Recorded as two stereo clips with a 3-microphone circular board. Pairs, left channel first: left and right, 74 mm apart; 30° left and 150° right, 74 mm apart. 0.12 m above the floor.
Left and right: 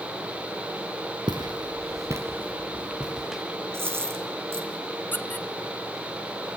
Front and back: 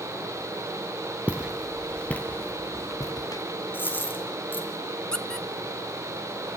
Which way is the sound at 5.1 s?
100° left.